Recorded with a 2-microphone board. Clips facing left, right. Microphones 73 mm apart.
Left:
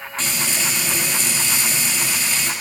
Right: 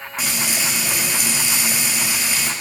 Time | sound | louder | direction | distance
0.2 | frying | even | 15° right (ahead or behind) | 1.7 m